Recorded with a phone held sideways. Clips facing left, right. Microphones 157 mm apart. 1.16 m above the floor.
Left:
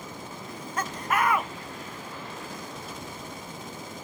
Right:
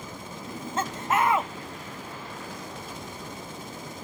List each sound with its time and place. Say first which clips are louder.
0.5 s laughter: right 3 dB; 25° right (ahead or behind), 0.7 m